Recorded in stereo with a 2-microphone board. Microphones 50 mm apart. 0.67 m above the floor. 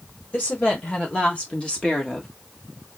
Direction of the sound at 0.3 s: 30° left (ahead or behind).